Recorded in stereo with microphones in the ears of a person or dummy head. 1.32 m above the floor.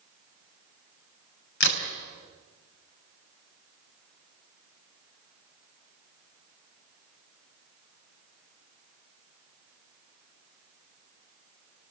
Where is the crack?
65° left (ahead or behind), 3.5 m.